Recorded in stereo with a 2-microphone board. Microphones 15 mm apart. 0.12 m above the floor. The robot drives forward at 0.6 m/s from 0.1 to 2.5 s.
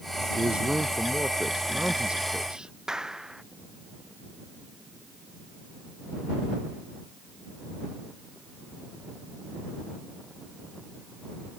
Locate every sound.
0.3 s a man speaking: 70° right (ahead or behind)
2.9 s a clap: 40° right (ahead or behind)